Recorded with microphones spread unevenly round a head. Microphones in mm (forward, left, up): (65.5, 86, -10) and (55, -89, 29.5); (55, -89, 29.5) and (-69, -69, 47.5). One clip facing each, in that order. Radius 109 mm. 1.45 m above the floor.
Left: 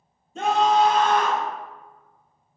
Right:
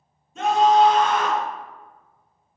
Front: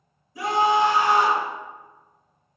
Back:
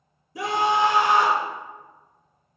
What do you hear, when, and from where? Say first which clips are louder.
0.3 s a scream: right 3 dB, front 2 dB; 155° left, 0.6 m; by 1.4 s 170° right, 1.0 m